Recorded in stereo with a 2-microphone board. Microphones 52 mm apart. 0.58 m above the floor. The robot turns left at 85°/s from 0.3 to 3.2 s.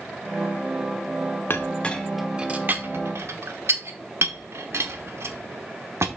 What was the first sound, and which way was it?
A clink, 45° left (ahead or behind).